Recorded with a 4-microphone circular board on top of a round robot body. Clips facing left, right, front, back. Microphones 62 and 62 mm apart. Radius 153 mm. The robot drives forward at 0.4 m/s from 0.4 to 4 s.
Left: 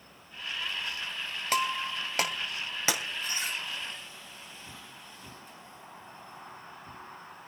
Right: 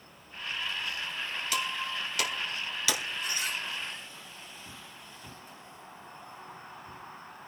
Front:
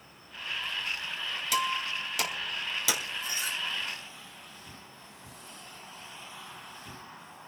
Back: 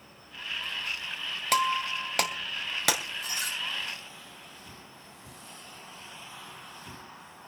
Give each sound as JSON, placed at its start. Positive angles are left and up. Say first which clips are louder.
{"t": 1.5, "sound": "breaking glass", "louder": "left 5 dB, back 4 dB", "azimuth_deg": 145, "distance_m": 3.0}